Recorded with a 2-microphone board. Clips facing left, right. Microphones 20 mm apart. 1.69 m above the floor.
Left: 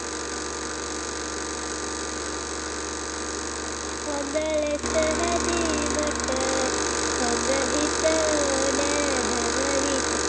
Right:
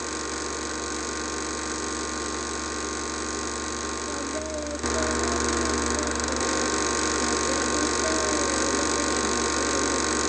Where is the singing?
85° left.